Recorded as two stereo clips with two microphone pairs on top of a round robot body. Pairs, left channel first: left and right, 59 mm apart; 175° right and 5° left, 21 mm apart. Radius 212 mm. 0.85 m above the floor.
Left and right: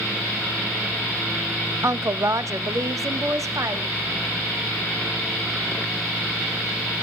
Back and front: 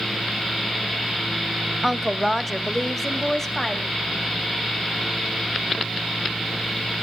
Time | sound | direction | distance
1.8 | a woman speaking | 90° right | 0.7 m